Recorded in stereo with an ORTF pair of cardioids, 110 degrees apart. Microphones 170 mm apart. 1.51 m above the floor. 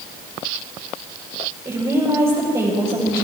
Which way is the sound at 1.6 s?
25° right.